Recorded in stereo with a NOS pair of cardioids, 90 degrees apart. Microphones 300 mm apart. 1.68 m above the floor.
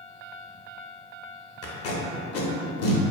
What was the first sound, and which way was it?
Tape being pulled, 50° left.